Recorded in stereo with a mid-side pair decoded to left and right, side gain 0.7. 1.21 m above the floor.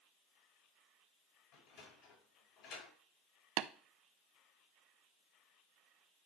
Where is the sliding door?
60° left, 4.5 m.